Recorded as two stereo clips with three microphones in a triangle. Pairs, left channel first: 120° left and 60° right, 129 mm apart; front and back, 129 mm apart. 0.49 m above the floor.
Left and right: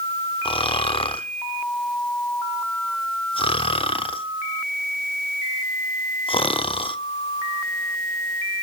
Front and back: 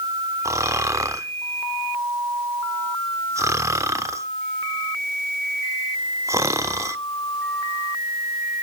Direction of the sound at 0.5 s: 125° left.